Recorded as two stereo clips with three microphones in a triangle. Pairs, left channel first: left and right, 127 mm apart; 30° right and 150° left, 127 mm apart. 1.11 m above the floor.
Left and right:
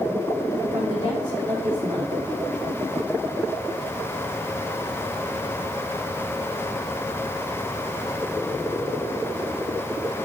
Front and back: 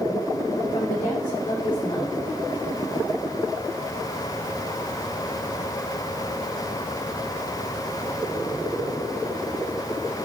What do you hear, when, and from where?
0.7 s a woman speaking: 35° right, 4 m